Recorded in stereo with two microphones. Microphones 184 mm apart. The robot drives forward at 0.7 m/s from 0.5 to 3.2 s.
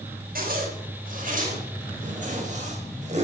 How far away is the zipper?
About 4.5 m.